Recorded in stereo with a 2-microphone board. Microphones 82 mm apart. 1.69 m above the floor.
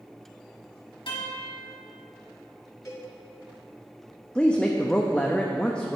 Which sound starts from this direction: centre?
A woman speaking, at 4.3 s.